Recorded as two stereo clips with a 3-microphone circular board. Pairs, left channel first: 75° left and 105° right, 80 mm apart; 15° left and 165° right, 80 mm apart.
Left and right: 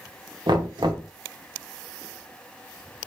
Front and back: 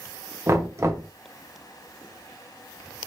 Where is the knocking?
110° right, 1.0 m.